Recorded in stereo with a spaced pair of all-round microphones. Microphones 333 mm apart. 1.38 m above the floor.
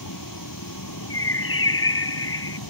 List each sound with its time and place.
0.0 s a vehicle: 65° left (ahead or behind); by 2.7 s 75° left (ahead or behind)
1.1 s a bird: 40° left (ahead or behind)